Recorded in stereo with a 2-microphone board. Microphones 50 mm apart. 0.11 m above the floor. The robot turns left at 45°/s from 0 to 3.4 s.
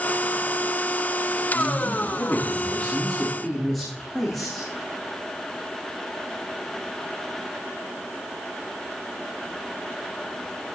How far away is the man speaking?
About 7.5 m.